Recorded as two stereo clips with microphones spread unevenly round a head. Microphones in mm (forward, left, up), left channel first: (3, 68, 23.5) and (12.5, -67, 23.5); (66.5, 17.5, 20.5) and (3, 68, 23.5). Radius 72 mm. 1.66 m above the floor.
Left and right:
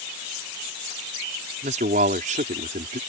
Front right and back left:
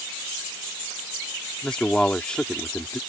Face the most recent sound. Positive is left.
turn(degrees=-125)